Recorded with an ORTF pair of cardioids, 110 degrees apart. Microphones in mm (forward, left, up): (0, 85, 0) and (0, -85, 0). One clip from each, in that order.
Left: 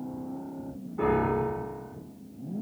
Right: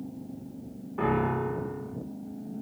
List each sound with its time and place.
1.0 s a piano: 45° right, 0.8 m